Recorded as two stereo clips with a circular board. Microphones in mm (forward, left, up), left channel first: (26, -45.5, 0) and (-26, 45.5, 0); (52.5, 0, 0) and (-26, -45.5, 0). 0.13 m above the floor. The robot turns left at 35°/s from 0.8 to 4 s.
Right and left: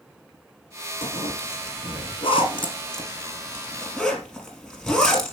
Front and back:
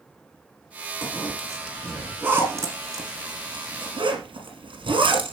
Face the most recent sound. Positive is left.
turn(degrees=-145)